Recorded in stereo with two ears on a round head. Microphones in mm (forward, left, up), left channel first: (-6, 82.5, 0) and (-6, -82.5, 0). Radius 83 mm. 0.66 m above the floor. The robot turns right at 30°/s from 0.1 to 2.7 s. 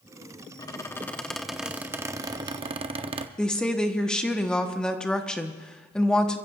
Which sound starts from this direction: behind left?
A squeak, at 0.6 s.